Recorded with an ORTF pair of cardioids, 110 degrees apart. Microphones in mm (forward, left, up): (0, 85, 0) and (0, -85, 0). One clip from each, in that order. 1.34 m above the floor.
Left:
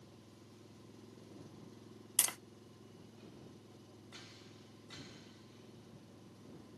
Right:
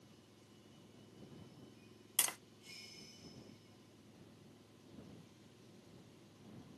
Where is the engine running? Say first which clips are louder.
Left 4 dB; 35° left.